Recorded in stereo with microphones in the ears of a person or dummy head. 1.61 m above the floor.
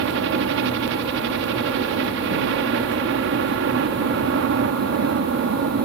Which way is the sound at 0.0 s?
65° right (ahead or behind).